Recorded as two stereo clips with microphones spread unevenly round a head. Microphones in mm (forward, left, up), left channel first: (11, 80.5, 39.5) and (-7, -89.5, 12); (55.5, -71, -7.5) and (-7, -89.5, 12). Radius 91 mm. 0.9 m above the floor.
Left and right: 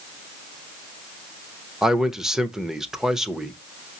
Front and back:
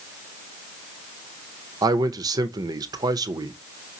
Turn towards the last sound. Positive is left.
turn(degrees=-170)